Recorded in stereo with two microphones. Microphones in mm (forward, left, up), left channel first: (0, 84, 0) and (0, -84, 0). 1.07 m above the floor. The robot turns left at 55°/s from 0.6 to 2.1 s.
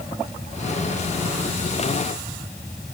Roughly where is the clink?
I don't hear a clink.